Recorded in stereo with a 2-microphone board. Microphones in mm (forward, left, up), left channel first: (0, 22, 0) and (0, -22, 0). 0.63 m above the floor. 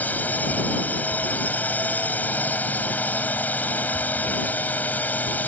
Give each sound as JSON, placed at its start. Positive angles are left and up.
{"t": 0.0, "sound": "a drone", "side_deg": 40}